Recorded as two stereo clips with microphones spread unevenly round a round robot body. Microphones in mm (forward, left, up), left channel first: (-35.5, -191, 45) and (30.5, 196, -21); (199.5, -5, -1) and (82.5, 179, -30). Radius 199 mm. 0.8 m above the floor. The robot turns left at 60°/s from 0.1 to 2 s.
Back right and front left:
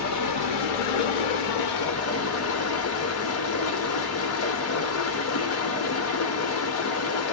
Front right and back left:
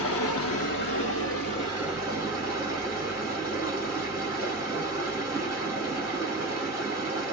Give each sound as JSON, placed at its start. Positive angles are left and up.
{"t": 0.0, "sound": "running water", "azimuth_deg": -45, "distance_m": 0.8}